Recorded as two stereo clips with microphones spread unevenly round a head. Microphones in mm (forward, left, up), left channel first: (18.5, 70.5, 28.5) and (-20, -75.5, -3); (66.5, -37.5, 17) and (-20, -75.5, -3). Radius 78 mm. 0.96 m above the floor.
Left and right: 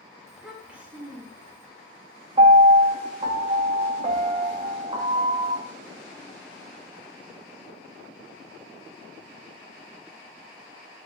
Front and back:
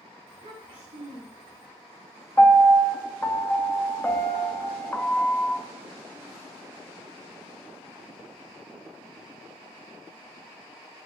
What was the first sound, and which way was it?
A child speaking, 170° left.